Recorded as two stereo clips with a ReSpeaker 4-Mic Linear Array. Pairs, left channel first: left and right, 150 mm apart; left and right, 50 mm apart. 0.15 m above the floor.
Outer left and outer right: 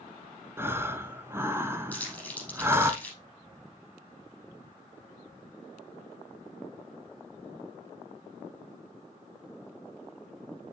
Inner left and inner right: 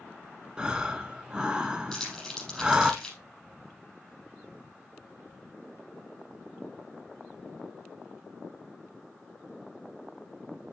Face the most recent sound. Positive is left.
turn(degrees=10)  # may be behind; listen again after turning